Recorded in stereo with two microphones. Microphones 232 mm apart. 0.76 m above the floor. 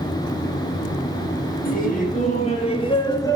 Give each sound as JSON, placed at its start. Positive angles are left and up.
{"t": 1.6, "sound": "laughter", "side_deg": 40, "distance_m": 4.5}